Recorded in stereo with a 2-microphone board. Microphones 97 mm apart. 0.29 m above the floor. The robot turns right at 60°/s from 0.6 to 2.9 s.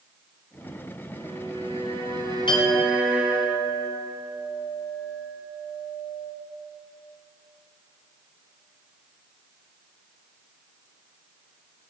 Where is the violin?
120° right, 3 m; by 3.5 s 15° right, 3 m.